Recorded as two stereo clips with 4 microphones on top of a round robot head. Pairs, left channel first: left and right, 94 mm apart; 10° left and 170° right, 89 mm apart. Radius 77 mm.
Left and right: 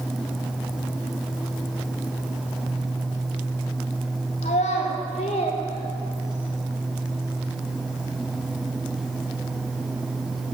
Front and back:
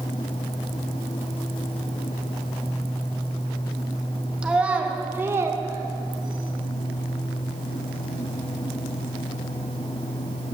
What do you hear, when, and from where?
4.4 s a child speaking: 110° left, 1.9 m; by 6.5 s 165° left, 1.2 m